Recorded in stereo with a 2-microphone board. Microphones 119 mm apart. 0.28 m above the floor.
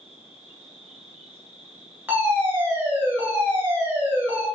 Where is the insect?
45° left (ahead or behind), 1.9 m.